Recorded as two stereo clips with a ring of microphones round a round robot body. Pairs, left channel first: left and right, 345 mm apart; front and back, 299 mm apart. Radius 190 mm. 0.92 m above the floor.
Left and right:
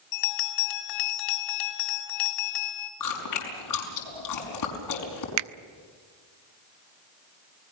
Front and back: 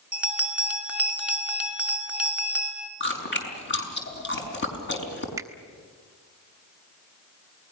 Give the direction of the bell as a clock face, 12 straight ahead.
9 o'clock.